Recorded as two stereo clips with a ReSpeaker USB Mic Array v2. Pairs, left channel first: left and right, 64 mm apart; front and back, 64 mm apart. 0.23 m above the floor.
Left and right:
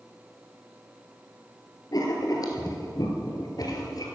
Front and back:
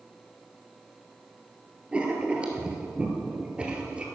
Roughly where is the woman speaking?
I don't hear a woman speaking.